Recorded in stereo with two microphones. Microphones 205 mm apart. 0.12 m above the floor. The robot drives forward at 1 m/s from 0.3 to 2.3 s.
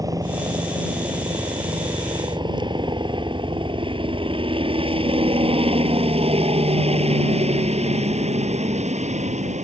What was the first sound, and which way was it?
A helicopter, 15° right (ahead or behind).